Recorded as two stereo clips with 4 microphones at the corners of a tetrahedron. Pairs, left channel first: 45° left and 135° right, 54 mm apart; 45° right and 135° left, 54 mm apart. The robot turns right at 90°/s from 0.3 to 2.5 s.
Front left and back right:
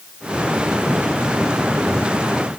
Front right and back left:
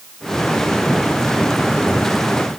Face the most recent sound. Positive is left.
No sound to turn to.